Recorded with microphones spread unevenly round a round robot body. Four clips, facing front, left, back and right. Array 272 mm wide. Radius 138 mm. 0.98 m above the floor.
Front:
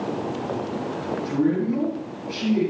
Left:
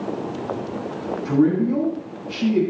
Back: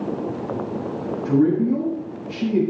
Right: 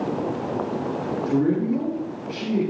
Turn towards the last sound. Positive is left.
turn(degrees=150)